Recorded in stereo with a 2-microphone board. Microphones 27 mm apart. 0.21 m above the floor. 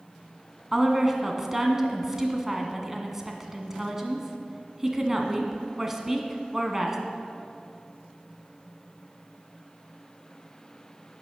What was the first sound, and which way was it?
A woman speaking, 15° right (ahead or behind).